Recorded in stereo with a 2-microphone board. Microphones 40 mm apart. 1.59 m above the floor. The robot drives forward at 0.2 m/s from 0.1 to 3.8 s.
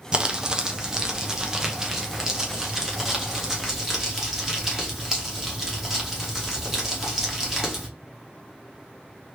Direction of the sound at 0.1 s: 25° right (ahead or behind).